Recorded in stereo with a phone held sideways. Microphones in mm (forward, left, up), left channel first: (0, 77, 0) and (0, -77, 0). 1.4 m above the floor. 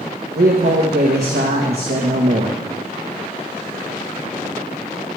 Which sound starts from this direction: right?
A man speaking, at 0.3 s.